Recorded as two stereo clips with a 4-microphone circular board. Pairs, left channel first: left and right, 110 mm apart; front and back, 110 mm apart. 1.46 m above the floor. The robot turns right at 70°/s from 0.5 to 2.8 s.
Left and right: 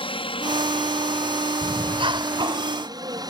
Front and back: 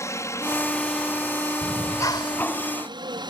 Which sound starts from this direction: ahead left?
A helicopter, at 0.0 s.